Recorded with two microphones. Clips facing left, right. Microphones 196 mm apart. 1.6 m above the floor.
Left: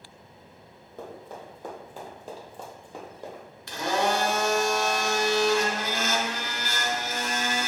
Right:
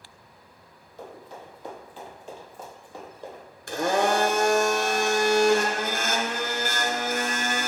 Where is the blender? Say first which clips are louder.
Right 3 dB; 50° right (ahead or behind), 0.9 m.